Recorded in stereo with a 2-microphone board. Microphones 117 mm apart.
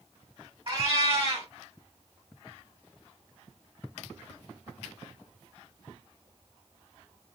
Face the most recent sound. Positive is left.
turn(degrees=-45)  # may be behind; listen again after turning